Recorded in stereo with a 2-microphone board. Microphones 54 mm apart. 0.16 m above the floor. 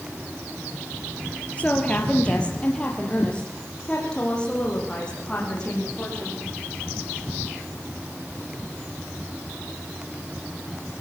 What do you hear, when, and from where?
1.6 s a woman speaking: 25° left (ahead or behind), 2.5 m; by 6.4 s 15° left (ahead or behind), 9.5 m